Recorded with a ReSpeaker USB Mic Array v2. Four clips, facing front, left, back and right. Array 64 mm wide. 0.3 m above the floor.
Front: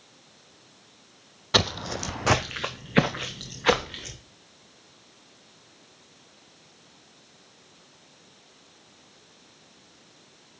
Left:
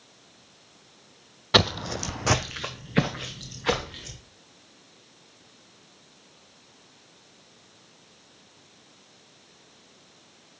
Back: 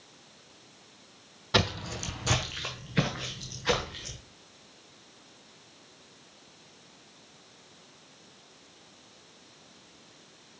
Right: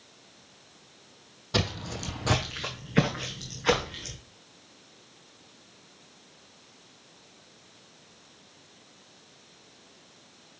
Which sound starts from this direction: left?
Footsteps, at 1.5 s.